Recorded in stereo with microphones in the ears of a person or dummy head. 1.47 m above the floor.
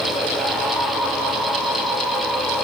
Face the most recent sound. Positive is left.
No sound to turn to.